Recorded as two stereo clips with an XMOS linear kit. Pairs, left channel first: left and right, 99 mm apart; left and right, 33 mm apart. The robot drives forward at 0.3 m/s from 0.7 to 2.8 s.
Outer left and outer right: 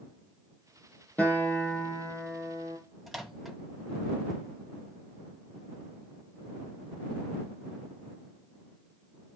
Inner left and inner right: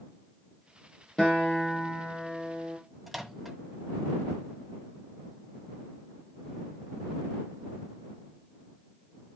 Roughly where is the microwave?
Centre.